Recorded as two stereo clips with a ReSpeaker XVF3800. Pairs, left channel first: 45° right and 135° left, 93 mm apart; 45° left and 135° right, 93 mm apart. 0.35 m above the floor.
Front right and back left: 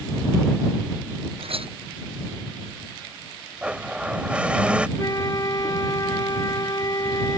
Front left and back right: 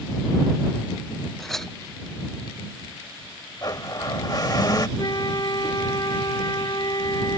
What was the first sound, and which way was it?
A clink, 130° left.